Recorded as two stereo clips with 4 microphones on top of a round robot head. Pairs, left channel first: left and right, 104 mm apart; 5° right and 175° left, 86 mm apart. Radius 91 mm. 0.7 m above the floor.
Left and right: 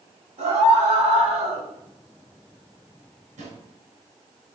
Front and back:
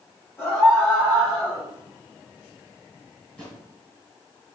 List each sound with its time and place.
0.4 s a scream: 70° right, 4.5 m; by 1.6 s 75° right, 3.5 m
3.4 s a drawer: 80° right, 4 m